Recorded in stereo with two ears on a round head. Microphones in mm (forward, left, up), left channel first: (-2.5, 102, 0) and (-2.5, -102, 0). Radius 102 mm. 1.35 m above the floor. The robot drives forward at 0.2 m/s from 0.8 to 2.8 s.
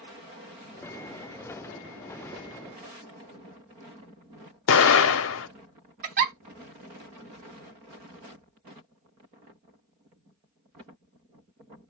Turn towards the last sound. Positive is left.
turn(degrees=-40)  # may be behind; listen again after turning